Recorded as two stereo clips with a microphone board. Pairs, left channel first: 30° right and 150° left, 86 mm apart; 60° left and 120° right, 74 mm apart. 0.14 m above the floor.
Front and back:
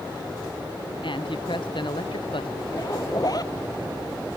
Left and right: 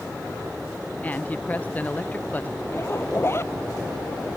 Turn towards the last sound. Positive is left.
turn(degrees=10)